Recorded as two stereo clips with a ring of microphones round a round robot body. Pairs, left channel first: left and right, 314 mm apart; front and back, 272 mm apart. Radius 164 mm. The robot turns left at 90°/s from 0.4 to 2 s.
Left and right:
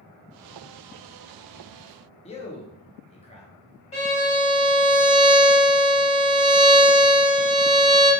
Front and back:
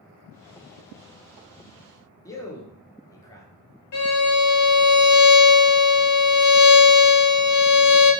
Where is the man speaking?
60° left, 0.6 m.